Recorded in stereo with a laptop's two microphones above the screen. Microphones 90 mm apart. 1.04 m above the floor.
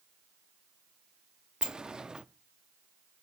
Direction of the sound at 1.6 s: 10° right (ahead or behind).